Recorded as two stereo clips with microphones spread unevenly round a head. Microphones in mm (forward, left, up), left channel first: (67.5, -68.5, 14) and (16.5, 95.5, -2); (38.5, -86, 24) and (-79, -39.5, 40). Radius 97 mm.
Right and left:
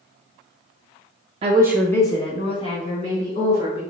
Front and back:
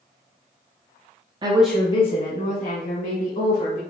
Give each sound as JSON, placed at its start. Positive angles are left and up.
{"t": 1.4, "sound": "a woman speaking", "azimuth_deg": 115, "distance_m": 0.5}